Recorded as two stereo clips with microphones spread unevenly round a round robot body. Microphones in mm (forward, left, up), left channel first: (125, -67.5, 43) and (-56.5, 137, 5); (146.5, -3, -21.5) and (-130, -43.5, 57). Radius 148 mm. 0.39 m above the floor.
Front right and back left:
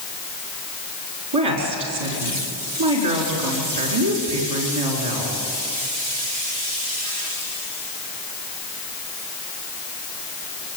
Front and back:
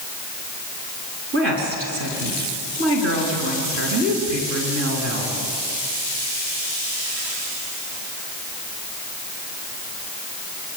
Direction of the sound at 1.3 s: 140° left.